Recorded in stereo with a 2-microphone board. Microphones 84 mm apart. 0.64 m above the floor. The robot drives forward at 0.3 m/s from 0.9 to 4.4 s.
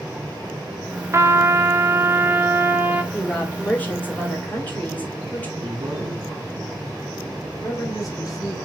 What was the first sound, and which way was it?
A trumpet, 35° right (ahead or behind).